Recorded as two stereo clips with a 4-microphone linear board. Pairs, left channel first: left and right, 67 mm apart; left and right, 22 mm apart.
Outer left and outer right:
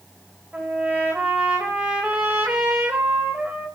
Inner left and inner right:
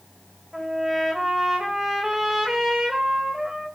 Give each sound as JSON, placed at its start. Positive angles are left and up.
{"t": 0.5, "sound": "a trumpet", "side_deg": -20, "distance_m": 4.0}